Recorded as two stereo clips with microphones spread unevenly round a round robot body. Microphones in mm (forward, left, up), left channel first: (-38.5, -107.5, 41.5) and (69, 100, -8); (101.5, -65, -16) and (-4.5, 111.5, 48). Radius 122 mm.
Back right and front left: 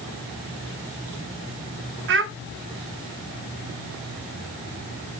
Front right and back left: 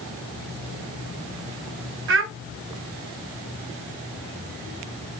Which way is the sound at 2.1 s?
90° left.